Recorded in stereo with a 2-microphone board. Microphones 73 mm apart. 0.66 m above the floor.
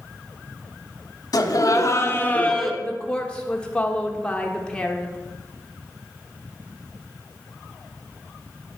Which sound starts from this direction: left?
Laughter, at 1.3 s.